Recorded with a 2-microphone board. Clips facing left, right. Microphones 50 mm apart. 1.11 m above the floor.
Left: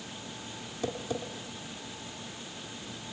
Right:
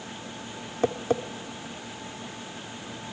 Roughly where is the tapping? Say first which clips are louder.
Right 9 dB; right.